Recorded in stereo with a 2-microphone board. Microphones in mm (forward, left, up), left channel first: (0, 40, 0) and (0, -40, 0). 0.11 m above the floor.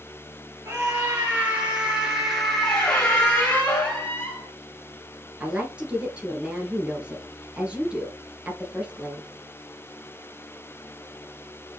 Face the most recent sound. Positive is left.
turn(degrees=-15)  # may be behind; listen again after turning